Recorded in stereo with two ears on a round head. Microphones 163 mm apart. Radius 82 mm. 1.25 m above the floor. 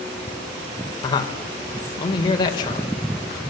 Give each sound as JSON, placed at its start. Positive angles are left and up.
{"t": 1.0, "sound": "a man speaking", "side_deg": 25, "distance_m": 4.5}